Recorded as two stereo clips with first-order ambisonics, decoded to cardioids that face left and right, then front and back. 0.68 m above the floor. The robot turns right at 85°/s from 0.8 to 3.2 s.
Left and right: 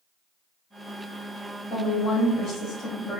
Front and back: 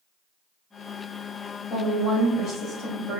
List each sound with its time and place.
1.7 s a woman speaking: 45° left, 1.1 m; by 3.2 s 170° left, 1.1 m